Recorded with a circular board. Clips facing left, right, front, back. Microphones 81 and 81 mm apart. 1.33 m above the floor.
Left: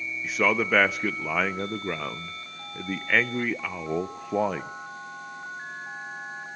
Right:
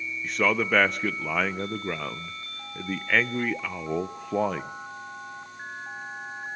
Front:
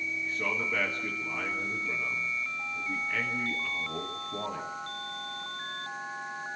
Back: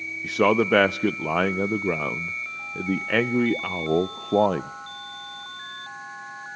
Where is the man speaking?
Straight behind, 0.5 m.